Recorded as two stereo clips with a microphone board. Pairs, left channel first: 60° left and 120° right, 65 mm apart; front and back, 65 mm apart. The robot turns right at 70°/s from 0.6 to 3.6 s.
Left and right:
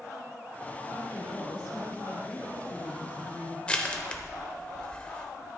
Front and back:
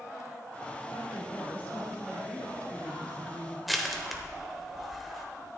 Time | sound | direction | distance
0.9 | a woman speaking | 10° left | 2.5 m
3.7 | crushing | 95° left | 1.0 m